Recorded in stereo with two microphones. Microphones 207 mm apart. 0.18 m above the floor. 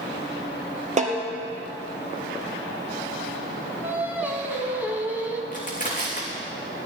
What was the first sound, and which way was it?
A snare drum, 35° right (ahead or behind).